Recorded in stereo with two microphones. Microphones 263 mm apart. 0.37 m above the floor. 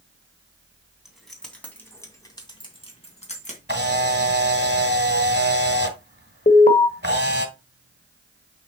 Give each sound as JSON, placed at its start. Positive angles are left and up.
{"t": 1.1, "sound": "keys jangling", "side_deg": 0, "distance_m": 2.5}
{"t": 3.7, "sound": "a camera shutter", "side_deg": -45, "distance_m": 1.6}
{"t": 6.5, "sound": "an alarm", "side_deg": 35, "distance_m": 1.1}